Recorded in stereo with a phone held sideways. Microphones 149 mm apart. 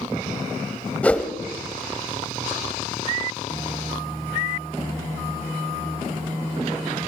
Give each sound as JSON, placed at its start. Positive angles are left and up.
{"t": 1.0, "sound": "a whoosh", "side_deg": 10, "distance_m": 1.0}